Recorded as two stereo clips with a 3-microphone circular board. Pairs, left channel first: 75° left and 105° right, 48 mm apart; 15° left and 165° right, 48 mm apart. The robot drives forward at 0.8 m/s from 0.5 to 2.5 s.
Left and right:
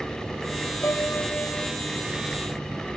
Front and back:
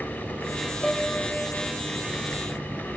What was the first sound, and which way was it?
A piano, 85° left.